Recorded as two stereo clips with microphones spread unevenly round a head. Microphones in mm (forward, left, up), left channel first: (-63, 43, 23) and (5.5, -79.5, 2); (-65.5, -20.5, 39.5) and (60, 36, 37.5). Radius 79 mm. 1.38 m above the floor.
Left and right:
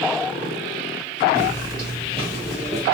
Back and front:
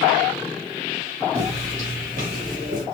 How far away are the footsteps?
About 1.6 m.